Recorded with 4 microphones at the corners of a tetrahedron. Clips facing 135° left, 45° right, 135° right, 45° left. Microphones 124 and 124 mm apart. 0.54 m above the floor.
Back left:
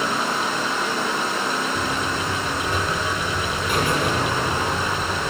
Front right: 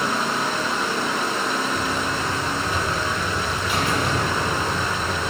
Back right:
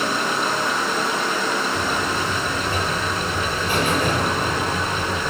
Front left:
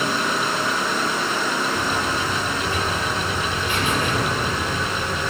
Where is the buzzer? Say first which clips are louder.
Even, even; 175° left, 7.5 m.